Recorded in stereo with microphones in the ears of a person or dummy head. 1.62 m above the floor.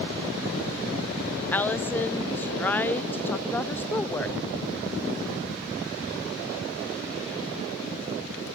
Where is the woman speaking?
10° left (ahead or behind), 0.5 m.